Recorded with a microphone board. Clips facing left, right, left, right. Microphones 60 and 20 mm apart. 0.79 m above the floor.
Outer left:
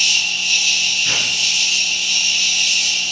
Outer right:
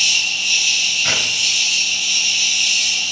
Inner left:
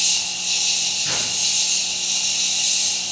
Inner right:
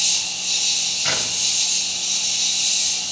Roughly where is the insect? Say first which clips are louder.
Even, even; centre.